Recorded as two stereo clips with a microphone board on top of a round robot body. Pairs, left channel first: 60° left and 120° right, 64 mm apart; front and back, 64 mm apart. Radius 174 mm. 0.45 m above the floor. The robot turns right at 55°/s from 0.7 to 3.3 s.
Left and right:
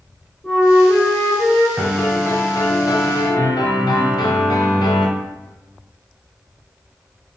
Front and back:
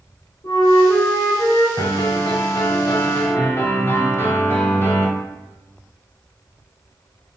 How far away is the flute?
About 1.7 m.